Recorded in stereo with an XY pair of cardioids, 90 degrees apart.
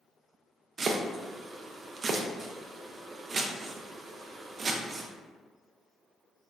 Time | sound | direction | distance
0.8 | chopping | 45° right | 0.5 m